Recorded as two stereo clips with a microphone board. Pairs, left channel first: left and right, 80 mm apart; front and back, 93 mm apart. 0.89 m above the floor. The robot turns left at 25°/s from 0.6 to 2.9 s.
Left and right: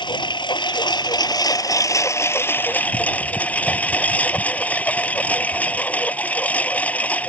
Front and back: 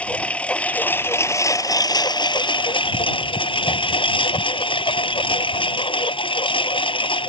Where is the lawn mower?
75° left; by 7.3 s 20° left.